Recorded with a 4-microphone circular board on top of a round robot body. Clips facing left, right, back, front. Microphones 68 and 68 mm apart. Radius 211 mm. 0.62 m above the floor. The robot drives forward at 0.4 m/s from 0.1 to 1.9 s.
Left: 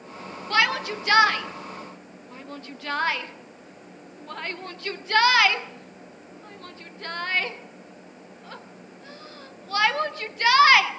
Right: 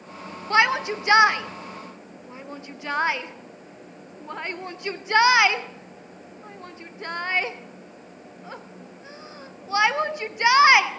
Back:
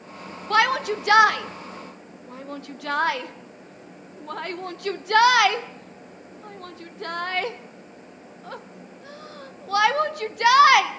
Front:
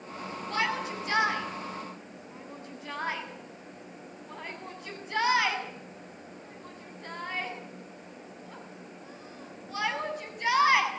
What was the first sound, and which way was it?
A shout, 160° right.